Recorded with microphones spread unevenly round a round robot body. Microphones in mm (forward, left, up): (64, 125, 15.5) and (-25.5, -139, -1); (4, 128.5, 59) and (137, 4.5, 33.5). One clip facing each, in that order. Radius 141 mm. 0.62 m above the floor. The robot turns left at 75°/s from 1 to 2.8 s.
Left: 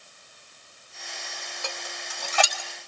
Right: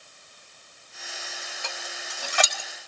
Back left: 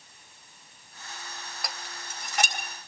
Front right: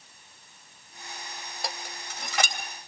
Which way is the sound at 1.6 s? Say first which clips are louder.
Left 3 dB, front right 5 dB; 20° left.